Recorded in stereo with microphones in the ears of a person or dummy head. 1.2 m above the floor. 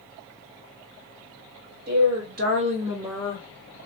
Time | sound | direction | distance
1.9 | a woman speaking | 50° right (ahead or behind) | 1.2 m